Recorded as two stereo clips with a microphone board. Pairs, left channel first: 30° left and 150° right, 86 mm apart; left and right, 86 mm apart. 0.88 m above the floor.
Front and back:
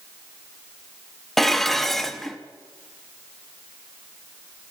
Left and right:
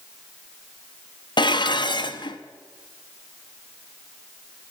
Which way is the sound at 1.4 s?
115° left.